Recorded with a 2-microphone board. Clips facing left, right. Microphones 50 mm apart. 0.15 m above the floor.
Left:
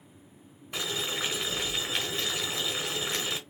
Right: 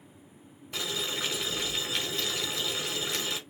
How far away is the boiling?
About 1.2 m.